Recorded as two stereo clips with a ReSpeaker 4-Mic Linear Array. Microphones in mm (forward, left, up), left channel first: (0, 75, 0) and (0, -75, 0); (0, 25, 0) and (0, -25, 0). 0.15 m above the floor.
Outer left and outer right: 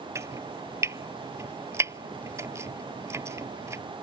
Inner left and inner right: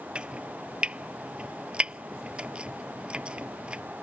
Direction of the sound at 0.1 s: 20° right (ahead or behind).